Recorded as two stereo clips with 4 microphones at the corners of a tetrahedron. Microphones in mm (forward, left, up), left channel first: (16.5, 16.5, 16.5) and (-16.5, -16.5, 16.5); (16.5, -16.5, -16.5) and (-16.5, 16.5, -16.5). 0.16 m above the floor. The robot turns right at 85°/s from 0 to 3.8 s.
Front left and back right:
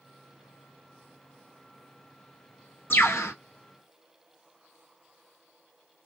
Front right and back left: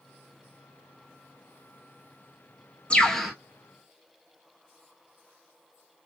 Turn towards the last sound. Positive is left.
turn(degrees=95)